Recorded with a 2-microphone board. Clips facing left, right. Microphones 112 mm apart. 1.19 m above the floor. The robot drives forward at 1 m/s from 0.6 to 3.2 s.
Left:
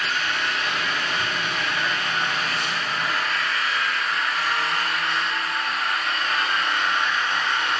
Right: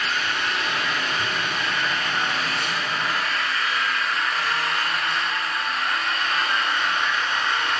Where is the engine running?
70° right (ahead or behind), 3.5 m; by 7.8 s 40° right (ahead or behind), 5 m.